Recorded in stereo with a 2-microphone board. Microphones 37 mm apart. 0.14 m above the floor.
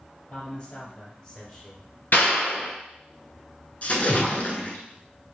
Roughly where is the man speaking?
Left.